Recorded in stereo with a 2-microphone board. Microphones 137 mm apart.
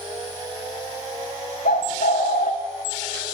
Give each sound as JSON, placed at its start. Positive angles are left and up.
{"t": 1.6, "sound": "a bird", "side_deg": 85, "distance_m": 0.6}